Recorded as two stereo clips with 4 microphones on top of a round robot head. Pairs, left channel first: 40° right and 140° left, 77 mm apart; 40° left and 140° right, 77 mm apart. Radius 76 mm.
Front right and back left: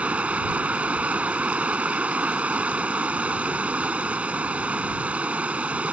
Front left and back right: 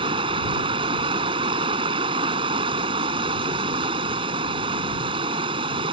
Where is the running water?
145° right.